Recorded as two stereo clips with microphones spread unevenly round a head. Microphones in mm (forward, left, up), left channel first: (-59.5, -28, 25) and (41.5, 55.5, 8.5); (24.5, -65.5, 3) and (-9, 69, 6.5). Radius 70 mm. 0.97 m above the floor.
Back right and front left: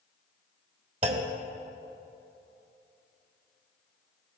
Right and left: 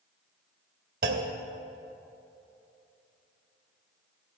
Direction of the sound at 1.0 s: 85° left.